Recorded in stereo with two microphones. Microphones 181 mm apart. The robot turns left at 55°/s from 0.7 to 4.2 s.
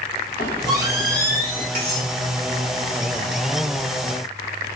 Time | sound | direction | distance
0.4 | a squeak | 105° left | 1.4 m
1.8 | cutlery clinking | 60° right (ahead or behind) | 1.3 m